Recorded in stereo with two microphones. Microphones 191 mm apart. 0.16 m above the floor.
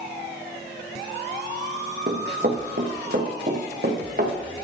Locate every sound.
2.1 s running footsteps: 60° right (ahead or behind), 2 m